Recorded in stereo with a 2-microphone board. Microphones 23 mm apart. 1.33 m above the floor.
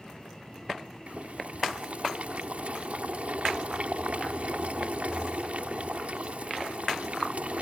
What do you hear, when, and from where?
1.1 s boiling: 70° right (ahead or behind)